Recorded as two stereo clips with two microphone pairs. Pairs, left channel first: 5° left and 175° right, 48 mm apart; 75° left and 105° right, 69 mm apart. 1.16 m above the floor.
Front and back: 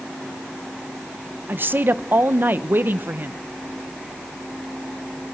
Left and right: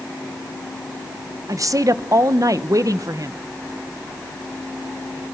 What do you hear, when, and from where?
1.5 s a woman speaking: 135° right, 0.7 m